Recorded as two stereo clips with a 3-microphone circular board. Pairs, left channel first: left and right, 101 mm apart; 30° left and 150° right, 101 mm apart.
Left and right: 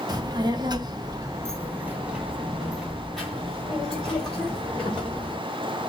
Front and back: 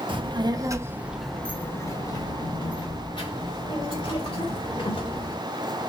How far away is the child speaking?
About 0.8 m.